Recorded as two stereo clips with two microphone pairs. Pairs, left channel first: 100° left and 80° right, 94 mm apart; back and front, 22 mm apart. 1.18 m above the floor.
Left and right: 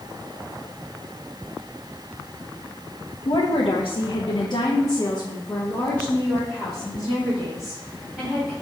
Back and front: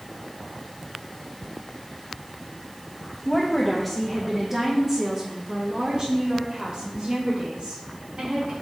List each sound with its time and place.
3.2 s a woman speaking: 105° left, 1.3 m; by 8.5 s 5° left, 3.5 m